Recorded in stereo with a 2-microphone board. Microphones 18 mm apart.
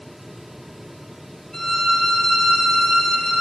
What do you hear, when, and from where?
1.5 s a violin: 25° left (ahead or behind), 1.0 m